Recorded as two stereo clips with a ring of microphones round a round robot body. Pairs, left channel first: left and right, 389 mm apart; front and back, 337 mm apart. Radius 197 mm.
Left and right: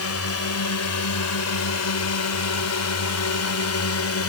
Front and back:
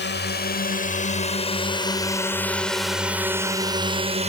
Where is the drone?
50° left; by 4.3 s 120° left.